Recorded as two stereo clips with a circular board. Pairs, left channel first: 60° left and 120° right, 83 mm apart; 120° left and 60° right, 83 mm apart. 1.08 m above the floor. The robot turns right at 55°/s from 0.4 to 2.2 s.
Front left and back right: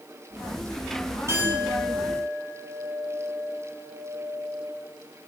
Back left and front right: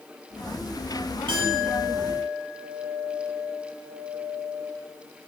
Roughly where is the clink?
Ahead right.